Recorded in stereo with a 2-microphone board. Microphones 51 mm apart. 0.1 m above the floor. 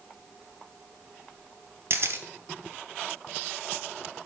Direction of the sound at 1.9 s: 55° right (ahead or behind).